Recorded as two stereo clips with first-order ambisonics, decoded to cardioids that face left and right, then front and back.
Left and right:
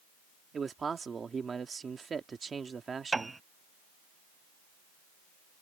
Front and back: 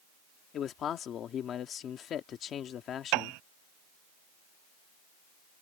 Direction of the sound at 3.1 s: 170° right.